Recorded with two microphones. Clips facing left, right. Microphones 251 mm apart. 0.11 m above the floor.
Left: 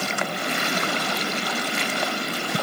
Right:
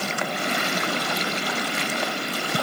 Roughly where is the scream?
No scream in this recording.